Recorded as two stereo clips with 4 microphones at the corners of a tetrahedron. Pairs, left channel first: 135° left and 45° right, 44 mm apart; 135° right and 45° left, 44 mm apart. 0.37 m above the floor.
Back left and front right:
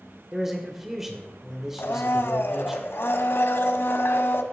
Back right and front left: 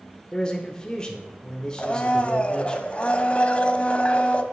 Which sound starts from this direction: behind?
A blender, at 1.8 s.